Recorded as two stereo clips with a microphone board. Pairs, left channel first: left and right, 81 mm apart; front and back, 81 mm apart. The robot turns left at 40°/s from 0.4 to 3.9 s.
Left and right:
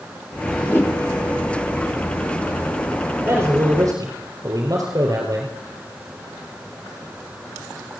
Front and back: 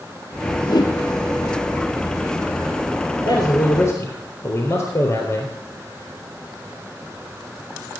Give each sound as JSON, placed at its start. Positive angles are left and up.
{"t": 0.7, "sound": "a whoosh", "azimuth_deg": 30, "distance_m": 2.5}
{"t": 3.2, "sound": "a man speaking", "azimuth_deg": -20, "distance_m": 3.5}